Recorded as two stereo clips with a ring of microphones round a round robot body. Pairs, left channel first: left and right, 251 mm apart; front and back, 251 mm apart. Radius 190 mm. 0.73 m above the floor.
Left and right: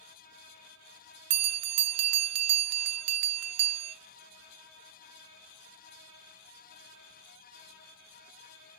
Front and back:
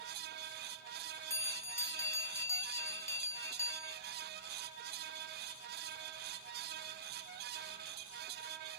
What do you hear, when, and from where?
1.3 s a bell: 80° right, 0.5 m